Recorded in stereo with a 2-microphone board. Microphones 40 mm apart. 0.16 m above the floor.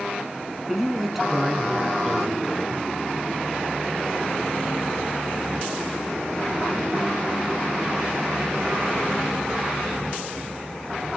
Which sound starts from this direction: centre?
A man speaking, at 0.7 s.